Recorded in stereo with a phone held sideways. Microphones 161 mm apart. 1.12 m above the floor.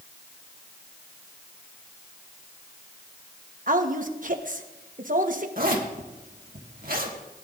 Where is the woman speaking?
55° right (ahead or behind), 1.1 m.